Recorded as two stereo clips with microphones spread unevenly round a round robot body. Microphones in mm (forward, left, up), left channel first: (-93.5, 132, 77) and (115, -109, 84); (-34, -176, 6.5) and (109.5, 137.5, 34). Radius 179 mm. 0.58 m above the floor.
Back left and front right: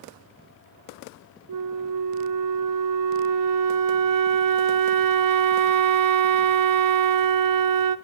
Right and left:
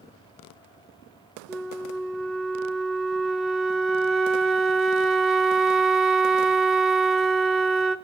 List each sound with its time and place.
1.5 s a flute: 25° right, 0.6 m